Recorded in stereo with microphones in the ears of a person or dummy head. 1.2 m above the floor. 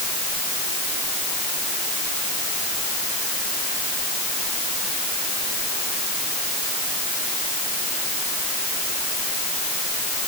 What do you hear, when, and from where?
Only background noise.